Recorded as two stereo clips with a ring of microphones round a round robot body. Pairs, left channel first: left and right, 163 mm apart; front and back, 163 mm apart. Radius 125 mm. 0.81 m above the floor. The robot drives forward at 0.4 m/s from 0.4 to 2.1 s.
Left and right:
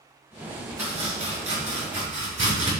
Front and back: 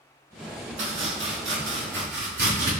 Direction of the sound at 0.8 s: 170° right.